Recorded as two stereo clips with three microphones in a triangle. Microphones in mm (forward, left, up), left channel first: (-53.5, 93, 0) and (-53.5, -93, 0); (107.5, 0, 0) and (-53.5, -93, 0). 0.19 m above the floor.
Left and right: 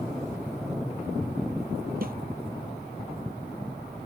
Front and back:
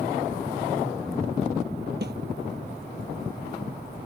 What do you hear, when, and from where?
2.0 s a snare drum: 125° right